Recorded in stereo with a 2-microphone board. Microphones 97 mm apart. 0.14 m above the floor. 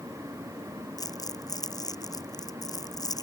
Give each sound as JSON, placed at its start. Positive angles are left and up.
{"t": 1.0, "sound": "crumpling", "side_deg": 40}